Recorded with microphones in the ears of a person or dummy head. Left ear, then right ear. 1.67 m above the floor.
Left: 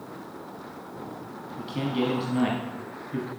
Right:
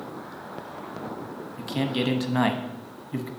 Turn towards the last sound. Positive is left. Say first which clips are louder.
# right 1 dB
turn(degrees=-40)  # may be behind; listen again after turning